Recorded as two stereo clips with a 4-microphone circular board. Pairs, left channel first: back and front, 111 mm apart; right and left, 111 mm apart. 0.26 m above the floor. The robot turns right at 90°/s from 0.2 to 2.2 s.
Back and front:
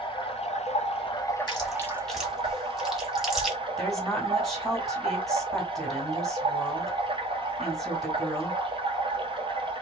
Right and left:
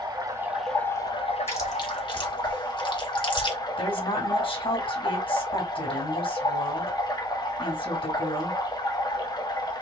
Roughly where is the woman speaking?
Right.